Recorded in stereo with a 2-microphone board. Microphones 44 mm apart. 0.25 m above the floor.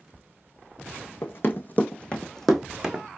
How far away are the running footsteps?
About 0.9 m.